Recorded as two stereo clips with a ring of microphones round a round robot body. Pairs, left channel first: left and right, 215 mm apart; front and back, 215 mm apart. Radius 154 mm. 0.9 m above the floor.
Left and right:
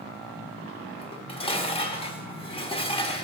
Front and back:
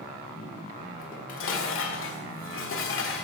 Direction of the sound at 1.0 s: 25° left.